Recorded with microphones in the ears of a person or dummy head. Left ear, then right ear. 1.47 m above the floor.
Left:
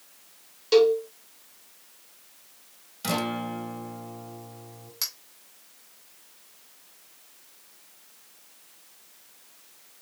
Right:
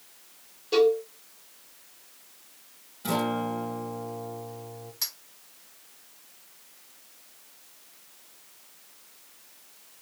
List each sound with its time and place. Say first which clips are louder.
0.7 s a cowbell: left 2 dB; 50° left (ahead or behind), 2.5 m
3.0 s a guitar: right 1 dB; 75° left (ahead or behind), 1.5 m
5.0 s a clink: left 1 dB; 25° left (ahead or behind), 2.5 m